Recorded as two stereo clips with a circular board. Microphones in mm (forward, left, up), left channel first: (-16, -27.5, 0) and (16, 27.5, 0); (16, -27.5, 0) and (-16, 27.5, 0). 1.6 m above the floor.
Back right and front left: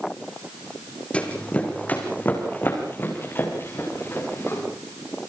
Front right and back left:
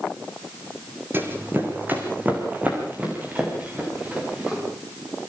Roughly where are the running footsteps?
Behind.